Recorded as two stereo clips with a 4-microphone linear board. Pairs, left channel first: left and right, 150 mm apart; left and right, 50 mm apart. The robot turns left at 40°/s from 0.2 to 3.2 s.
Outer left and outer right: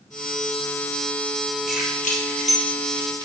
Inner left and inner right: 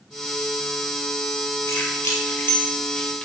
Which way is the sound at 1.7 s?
70° left (ahead or behind).